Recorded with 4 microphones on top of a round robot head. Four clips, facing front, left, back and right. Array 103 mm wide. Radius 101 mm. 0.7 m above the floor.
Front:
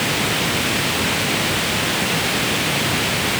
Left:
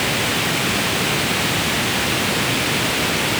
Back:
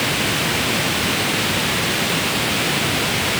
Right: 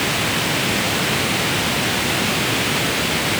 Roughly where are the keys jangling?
No keys jangling in this recording.